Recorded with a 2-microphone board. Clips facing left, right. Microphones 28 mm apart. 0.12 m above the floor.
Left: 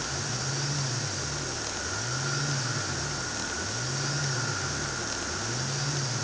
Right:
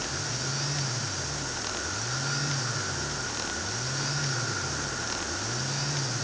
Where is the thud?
No thud in this recording.